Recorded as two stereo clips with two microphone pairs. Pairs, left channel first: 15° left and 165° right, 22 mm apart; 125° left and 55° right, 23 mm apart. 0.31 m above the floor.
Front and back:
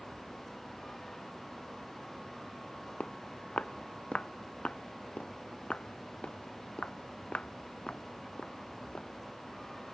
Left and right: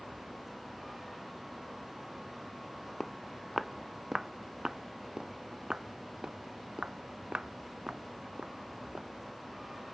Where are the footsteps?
35° left; by 9.1 s 20° right.